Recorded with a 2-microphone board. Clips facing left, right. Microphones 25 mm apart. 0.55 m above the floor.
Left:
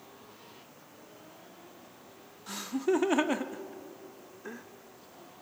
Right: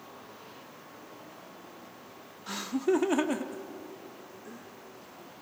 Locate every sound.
2.5 s laughter: 20° right (ahead or behind), 0.7 m; by 4.7 s 50° left (ahead or behind), 1.1 m